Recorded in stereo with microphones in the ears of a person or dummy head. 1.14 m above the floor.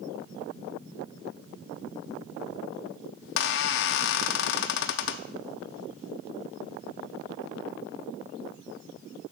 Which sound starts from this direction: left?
A squeak, at 3.2 s.